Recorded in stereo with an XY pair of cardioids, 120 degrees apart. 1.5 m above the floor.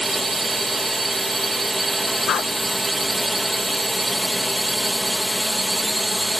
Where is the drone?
15° right.